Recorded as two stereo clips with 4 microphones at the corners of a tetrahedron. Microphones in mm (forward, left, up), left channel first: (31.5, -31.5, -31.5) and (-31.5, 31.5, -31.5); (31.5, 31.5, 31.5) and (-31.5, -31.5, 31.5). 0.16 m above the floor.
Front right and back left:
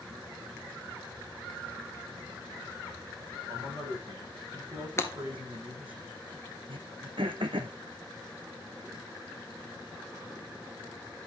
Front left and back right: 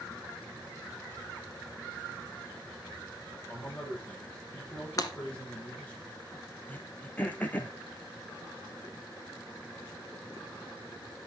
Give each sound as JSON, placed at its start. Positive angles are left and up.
{"t": 3.5, "sound": "a man speaking", "azimuth_deg": 115, "distance_m": 5.5}
{"t": 5.0, "sound": "breaking glass", "azimuth_deg": 5, "distance_m": 1.5}
{"t": 6.7, "sound": "throat clearing", "azimuth_deg": 115, "distance_m": 1.0}